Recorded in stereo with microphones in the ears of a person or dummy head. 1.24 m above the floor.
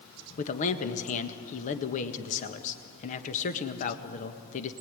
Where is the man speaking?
50° left (ahead or behind), 1.6 m.